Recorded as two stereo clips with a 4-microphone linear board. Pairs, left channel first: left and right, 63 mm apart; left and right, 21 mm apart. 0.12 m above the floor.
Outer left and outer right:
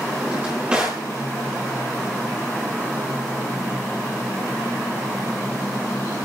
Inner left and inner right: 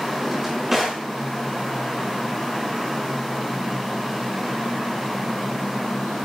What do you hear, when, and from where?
0.2 s a drawer: 15° right (ahead or behind), 6 m